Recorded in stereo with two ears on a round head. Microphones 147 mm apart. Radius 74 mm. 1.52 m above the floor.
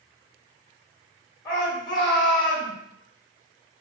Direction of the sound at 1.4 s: 25° left (ahead or behind).